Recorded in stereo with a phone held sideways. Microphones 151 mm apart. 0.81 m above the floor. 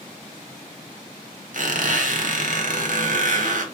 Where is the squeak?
60° right (ahead or behind), 1.0 m.